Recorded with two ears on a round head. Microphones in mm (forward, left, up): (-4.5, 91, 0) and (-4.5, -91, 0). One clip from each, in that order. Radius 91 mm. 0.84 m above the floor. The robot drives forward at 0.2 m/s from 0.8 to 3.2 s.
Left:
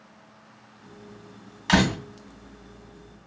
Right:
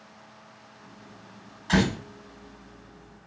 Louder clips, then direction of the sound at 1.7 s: Left 3 dB; 60° left (ahead or behind).